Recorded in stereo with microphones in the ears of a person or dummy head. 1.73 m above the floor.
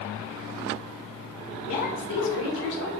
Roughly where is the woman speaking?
Left.